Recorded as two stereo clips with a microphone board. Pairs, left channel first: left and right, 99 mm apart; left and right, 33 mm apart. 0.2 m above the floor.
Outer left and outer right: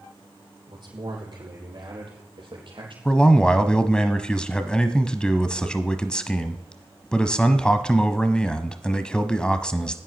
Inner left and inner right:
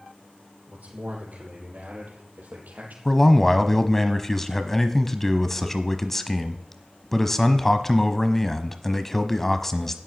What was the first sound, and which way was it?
A man speaking, 50° right (ahead or behind).